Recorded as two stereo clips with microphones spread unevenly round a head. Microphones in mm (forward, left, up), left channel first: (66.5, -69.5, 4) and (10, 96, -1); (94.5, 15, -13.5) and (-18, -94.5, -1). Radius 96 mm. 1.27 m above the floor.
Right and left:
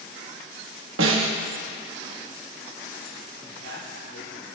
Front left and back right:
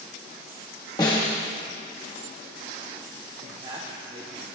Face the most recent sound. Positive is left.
turn(degrees=-80)